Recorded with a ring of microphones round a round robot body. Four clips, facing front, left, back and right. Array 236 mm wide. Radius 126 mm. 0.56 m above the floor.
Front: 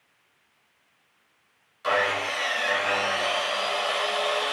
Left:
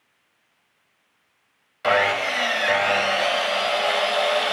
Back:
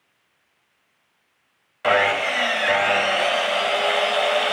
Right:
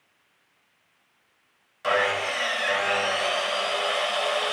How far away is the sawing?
About 0.5 m.